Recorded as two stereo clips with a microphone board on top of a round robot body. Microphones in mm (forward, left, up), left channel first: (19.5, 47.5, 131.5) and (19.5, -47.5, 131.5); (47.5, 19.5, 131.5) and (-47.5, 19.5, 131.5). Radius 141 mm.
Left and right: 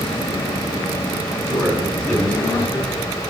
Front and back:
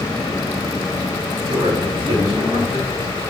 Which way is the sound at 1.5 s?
170° left.